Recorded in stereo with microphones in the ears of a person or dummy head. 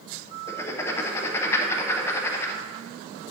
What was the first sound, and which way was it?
Writing, 15° left (ahead or behind).